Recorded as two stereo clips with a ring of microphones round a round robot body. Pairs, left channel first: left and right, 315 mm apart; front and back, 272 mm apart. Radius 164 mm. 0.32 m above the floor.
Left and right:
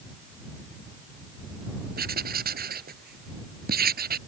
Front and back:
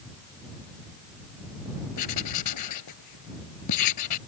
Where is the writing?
30° right.